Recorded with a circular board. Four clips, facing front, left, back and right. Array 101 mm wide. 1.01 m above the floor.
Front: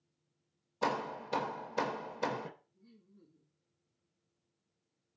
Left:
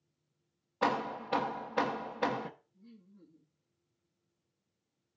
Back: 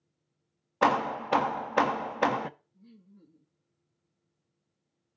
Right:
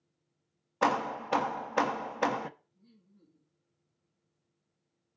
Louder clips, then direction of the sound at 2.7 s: Left 6 dB, back 6 dB; 165° left.